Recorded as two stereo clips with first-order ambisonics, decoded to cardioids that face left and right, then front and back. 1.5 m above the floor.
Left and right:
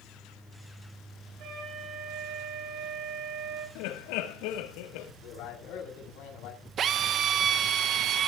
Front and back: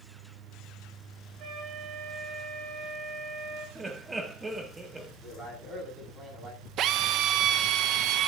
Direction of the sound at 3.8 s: 100° left.